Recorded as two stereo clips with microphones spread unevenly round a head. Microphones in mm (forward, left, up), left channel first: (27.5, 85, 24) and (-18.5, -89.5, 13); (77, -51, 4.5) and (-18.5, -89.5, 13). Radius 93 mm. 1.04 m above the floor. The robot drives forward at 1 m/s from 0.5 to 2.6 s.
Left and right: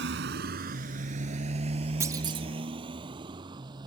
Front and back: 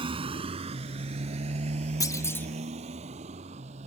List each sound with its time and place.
0.0 s a motorcycle: 130° right; by 3.9 s 170° right
2.0 s a clunk: 30° right; by 2.5 s 50° right